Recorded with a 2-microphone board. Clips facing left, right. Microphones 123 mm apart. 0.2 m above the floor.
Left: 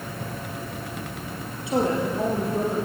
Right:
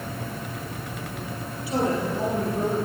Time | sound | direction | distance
1.7 | a woman speaking | 25° left (ahead or behind) | 4 m